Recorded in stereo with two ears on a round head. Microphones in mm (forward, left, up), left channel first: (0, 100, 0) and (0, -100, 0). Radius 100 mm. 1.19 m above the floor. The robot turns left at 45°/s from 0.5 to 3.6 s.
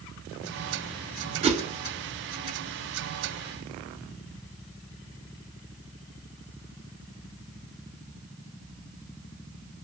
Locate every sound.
1.4 s a whoosh: 25° right (ahead or behind), 0.7 m; by 1.6 s 35° right (ahead or behind), 0.7 m